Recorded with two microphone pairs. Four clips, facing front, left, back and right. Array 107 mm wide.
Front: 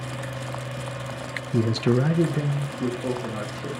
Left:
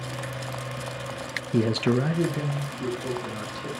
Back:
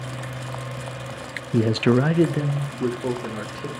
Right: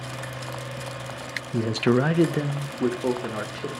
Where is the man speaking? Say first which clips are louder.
Right 1 dB, back 3 dB; 130° left, 0.6 m; by 3.7 s 105° right, 3 m.